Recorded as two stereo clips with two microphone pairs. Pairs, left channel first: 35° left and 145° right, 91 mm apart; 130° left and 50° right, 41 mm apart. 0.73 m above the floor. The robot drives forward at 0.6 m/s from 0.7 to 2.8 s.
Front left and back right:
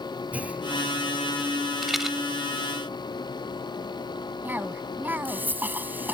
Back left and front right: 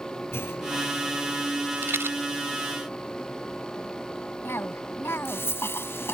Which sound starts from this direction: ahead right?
A rattle, at 1.8 s.